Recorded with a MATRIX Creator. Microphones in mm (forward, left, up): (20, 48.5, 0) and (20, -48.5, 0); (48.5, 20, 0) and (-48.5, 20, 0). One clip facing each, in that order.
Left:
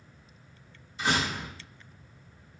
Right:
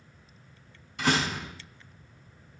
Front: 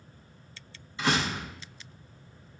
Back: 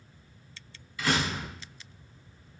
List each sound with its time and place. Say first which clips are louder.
1.0 s a door slam: right 2 dB, front 1 dB; 65° right, 7.5 m